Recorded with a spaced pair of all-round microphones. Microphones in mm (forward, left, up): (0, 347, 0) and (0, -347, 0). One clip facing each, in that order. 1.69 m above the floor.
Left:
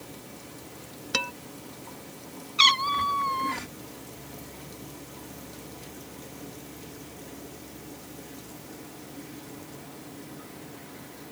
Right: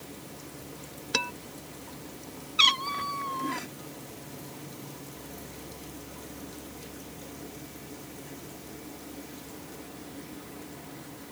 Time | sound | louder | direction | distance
1.1 | dishes clattering | right 1 dB | 10° left (ahead or behind) | ?
2.6 | a cat meowing | left 5 dB | 35° left (ahead or behind) | ?